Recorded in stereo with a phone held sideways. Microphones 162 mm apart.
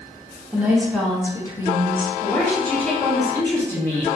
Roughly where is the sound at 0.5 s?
Centre.